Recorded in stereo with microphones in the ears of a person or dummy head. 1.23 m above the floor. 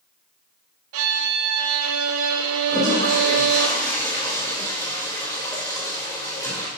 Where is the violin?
75° right (ahead or behind), 0.8 m.